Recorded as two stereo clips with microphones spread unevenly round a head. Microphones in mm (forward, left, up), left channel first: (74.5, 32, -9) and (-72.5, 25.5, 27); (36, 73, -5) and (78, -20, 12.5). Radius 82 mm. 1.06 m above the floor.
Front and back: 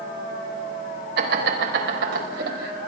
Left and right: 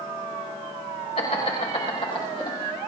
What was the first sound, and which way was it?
Laughter, 170° left.